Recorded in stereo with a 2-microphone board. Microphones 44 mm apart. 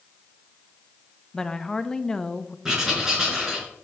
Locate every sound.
1.3 s a woman speaking: 15° left (ahead or behind), 0.6 m
2.6 s writing: 15° right (ahead or behind), 4 m